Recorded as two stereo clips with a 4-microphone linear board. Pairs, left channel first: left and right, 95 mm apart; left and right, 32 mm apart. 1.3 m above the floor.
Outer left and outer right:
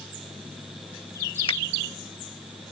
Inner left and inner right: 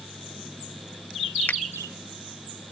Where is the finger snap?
75° left (ahead or behind).